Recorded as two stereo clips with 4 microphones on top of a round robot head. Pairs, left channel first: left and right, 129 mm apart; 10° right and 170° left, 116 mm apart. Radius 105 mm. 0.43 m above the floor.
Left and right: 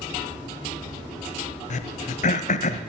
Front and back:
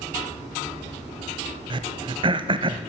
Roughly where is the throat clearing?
Behind left.